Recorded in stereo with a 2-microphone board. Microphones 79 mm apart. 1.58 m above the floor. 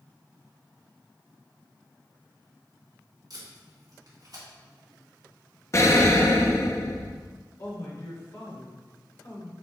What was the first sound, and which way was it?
Tape being pulled, 55° right (ahead or behind).